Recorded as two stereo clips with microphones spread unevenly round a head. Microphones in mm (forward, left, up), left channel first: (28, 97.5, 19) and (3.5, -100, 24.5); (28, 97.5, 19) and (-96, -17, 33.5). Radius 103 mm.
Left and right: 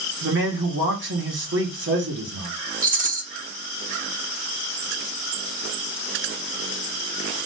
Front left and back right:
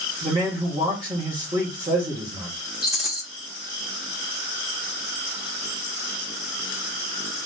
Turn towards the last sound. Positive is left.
turn(degrees=-45)